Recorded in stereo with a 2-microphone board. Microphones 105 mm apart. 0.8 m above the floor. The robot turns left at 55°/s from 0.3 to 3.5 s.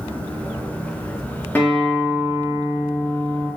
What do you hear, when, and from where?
1.6 s a guitar: 15° left, 1.0 m; by 3.5 s 90° right, 1.0 m